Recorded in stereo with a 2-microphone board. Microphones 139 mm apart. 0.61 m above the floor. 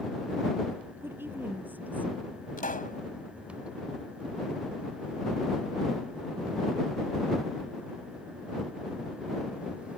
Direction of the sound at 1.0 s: 15° right (ahead or behind).